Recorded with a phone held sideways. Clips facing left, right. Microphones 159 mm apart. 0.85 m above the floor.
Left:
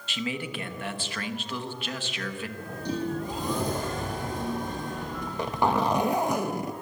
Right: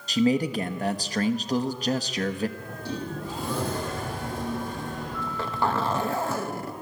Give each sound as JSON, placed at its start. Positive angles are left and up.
{"t": 0.1, "sound": "a man speaking", "side_deg": -40, "distance_m": 1.2}
{"t": 2.6, "sound": "a sliding door", "side_deg": 20, "distance_m": 6.0}
{"t": 5.2, "sound": "a zipper", "side_deg": 15, "distance_m": 0.8}